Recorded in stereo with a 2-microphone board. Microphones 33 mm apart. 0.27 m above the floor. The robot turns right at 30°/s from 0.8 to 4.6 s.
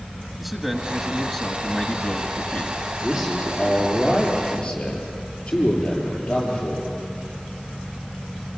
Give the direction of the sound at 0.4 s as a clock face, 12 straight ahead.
12 o'clock.